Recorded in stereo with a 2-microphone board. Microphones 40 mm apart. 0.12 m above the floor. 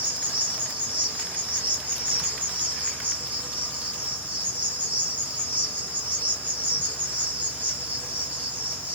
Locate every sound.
0.0 s an insect: 45° right (ahead or behind), 1.6 m